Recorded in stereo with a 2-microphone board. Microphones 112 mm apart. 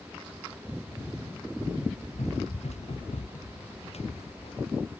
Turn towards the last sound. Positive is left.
turn(degrees=65)  # may be behind; listen again after turning